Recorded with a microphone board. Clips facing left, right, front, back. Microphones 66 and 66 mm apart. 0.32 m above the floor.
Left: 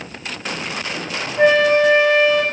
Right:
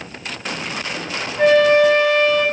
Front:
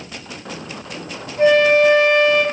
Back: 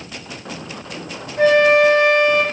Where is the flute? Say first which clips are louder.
Right 1 dB, even; 165° left, 3.5 m.